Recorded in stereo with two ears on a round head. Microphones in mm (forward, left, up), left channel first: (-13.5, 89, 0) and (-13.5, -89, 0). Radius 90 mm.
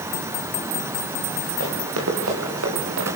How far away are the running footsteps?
About 8.5 m.